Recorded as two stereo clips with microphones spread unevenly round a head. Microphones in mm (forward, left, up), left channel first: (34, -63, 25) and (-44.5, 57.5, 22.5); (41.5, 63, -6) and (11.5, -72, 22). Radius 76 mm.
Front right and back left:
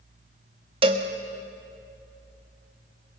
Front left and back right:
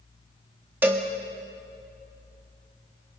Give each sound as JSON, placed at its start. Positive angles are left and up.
{"t": 0.8, "sound": "a cowbell", "azimuth_deg": 180, "distance_m": 1.4}